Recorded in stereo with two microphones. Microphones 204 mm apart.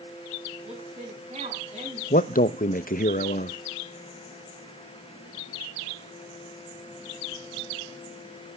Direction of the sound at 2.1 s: 45° left (ahead or behind).